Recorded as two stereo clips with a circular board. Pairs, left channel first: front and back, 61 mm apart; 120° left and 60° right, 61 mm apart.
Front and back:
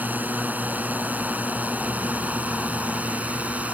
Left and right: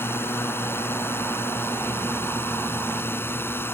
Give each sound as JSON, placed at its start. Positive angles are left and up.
{"t": 0.0, "sound": "a drone", "azimuth_deg": 135}